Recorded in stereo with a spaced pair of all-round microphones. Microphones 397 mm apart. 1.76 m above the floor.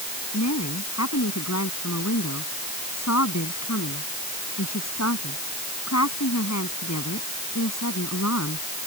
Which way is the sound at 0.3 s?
40° left (ahead or behind).